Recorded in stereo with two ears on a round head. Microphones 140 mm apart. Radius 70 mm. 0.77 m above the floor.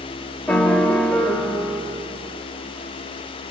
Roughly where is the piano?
Centre.